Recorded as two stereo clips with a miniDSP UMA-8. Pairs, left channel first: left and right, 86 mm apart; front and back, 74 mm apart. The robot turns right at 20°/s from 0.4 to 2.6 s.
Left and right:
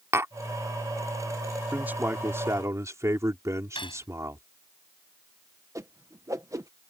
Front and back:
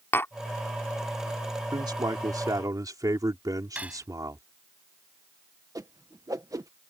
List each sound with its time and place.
0.1 s tapping: 45° right
1.7 s a man speaking: 160° right; by 4.4 s 145° right
3.8 s cutlery clinking: 105° left
5.8 s a whoosh: 140° right